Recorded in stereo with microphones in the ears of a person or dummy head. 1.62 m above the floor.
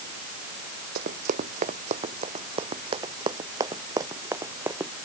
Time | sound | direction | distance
0.9 | running footsteps | 45° right (ahead or behind) | ?